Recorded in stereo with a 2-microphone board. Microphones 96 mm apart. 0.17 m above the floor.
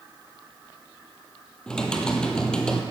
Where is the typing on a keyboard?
10° left (ahead or behind), 1.3 m.